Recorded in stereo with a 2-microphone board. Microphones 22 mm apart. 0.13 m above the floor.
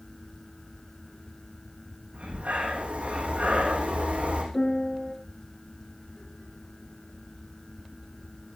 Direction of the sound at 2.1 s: 75° right (ahead or behind).